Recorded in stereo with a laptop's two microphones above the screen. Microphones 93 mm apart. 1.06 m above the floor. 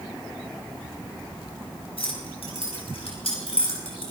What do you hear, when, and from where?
2.0 s keys jangling: 75° left (ahead or behind), 6.5 m